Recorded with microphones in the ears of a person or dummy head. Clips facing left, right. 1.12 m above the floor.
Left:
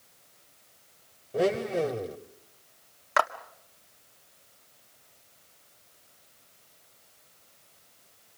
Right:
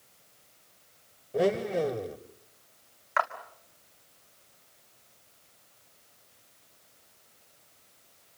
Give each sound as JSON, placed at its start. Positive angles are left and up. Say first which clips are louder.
{"t": 1.3, "sound": "a blender", "louder": "even", "side_deg": 0, "distance_m": 1.0}
{"t": 3.2, "sound": "a clap", "louder": "left 3 dB", "side_deg": 45, "distance_m": 1.6}